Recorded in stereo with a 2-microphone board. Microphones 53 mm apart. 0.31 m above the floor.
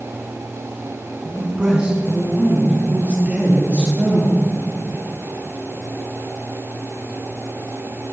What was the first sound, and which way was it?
A man speaking, 15° right (ahead or behind).